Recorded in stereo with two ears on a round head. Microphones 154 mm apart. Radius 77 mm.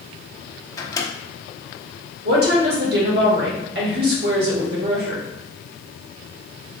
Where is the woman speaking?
65° right (ahead or behind), 1.4 m.